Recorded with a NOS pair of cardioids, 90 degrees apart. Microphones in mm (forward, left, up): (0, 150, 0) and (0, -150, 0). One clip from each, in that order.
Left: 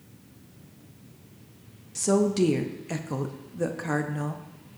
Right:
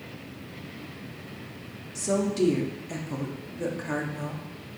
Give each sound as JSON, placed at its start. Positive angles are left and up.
{"t": 1.9, "sound": "a woman speaking", "azimuth_deg": 25, "distance_m": 0.5}